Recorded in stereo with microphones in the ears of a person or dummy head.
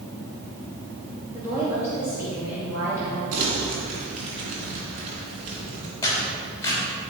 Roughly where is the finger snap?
No finger snap in this recording.